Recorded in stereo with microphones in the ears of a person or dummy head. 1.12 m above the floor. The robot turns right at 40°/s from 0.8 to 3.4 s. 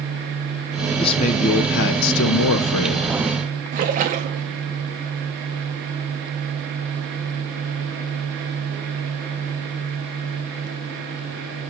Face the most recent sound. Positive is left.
turn(degrees=-45)  # may be behind; listen again after turning